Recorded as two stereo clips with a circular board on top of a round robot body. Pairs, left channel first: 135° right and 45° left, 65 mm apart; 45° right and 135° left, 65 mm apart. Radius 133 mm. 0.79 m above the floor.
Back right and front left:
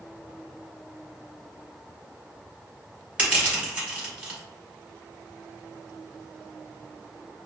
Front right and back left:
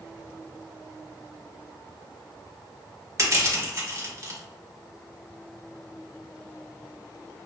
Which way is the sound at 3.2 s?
110° left.